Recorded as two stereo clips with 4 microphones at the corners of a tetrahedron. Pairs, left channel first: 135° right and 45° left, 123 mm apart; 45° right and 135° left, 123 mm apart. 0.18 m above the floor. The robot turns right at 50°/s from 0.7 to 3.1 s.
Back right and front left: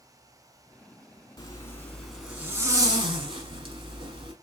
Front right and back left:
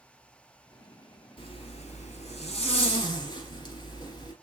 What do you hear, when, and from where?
1.4 s a zipper: 80° right, 1.2 m; by 4.3 s 5° left, 1.2 m